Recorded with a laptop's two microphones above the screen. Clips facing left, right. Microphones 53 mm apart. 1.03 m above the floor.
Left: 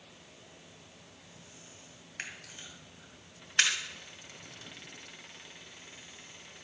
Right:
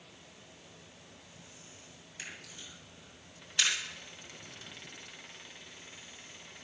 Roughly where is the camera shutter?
Left.